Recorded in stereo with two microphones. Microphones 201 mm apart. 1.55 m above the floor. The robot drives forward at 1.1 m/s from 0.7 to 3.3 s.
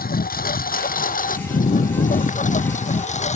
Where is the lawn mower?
45° left (ahead or behind); by 3.4 s 35° left (ahead or behind).